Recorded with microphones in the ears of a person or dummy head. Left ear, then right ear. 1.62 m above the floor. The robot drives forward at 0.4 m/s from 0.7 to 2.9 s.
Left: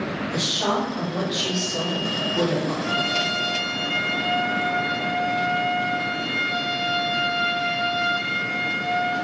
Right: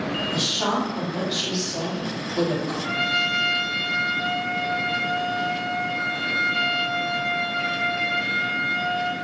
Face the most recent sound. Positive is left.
turn(degrees=-10)  # may be behind; listen again after turning